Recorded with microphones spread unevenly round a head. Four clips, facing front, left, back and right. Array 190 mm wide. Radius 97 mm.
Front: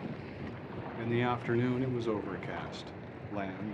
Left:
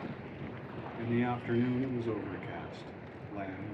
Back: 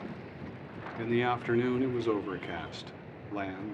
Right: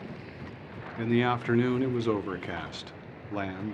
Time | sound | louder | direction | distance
1.0 | a man speaking | right 6 dB, back 3 dB | 110° right | 0.8 m